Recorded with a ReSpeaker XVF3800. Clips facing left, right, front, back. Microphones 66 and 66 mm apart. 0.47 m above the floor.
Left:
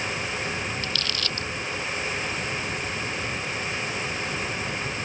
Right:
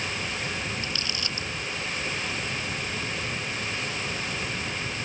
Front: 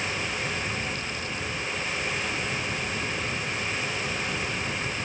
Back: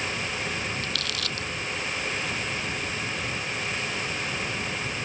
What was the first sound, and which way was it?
Crumpling, 160° right.